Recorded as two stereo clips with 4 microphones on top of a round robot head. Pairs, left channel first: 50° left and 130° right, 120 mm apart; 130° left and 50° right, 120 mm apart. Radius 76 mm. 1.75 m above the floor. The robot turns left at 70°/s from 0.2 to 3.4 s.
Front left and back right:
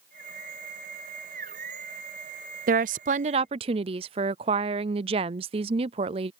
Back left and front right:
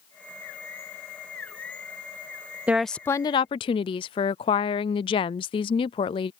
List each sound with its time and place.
2.7 s a woman speaking: 125° right; by 6.3 s 175° right